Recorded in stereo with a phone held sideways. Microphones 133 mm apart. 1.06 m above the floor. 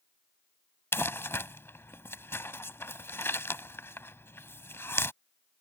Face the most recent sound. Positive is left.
turn(degrees=20)  # may be behind; listen again after turning